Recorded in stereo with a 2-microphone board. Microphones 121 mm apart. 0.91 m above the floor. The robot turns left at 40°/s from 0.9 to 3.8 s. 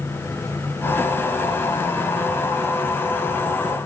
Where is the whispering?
No whispering in this recording.